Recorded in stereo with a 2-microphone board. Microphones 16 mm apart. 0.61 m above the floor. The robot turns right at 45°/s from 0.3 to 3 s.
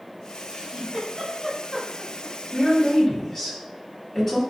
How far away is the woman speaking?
About 1.5 m.